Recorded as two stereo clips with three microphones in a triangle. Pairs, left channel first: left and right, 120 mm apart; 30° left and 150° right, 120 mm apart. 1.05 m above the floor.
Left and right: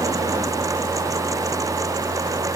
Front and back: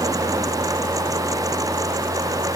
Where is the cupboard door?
No cupboard door in this recording.